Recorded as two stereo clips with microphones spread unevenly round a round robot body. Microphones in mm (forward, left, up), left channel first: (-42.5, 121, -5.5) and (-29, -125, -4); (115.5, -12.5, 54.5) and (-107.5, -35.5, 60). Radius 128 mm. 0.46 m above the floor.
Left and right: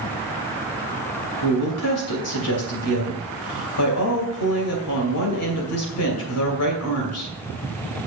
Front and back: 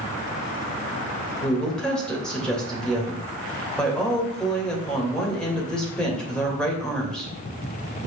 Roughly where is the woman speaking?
Left.